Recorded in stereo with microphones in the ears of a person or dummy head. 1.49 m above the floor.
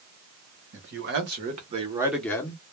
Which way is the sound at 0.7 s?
60° right (ahead or behind).